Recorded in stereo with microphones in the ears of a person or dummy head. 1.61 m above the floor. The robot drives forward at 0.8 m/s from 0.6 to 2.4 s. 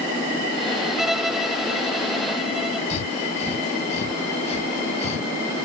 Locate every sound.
1.0 s a violin: centre (ahead or behind)
2.9 s breathing: 40° left (ahead or behind)